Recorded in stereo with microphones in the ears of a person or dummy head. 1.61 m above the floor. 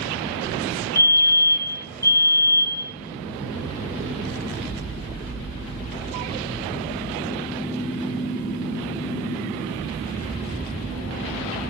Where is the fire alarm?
15° left (ahead or behind), 4.5 m.